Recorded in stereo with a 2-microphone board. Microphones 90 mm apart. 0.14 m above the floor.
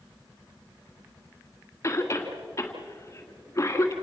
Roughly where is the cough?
Left.